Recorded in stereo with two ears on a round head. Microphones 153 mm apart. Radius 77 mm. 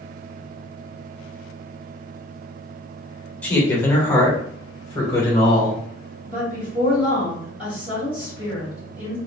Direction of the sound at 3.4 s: 10° left (ahead or behind).